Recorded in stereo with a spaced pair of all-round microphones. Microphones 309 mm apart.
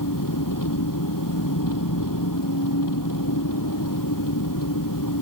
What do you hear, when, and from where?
0.0 s an engine running: 85° left